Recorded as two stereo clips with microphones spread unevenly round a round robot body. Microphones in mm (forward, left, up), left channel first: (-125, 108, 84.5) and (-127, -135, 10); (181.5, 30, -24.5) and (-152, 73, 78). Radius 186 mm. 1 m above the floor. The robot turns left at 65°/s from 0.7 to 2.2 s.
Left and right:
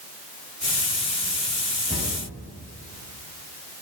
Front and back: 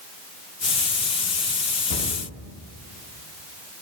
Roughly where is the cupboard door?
Ahead.